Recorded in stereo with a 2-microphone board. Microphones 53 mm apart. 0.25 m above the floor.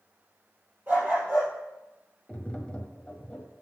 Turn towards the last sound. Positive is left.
turn(degrees=15)  # may be behind; listen again after turning